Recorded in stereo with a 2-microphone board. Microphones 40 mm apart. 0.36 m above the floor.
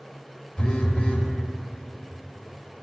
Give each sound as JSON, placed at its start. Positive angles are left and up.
{"t": 0.6, "sound": "a phone buzzing", "side_deg": 30, "distance_m": 0.8}